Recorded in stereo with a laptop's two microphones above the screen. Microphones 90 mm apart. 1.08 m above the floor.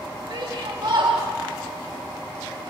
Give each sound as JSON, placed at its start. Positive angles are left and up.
{"t": 0.3, "sound": "a shout", "side_deg": -65, "distance_m": 4.5}